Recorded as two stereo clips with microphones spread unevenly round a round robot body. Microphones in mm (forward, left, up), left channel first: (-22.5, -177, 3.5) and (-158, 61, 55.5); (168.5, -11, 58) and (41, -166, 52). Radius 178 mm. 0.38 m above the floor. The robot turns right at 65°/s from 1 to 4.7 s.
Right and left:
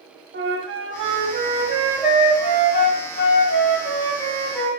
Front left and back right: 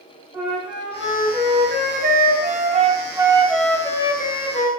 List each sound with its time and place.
0.3 s a flute: 150° left, 1.5 m; by 4.7 s 30° left, 1.5 m